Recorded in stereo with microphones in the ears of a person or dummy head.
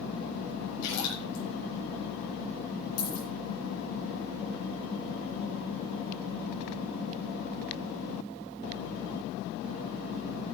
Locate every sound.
0.8 s a splash: 80° left, 7.5 m
3.0 s a dropped coin: 75° left (ahead or behind), 7.5 m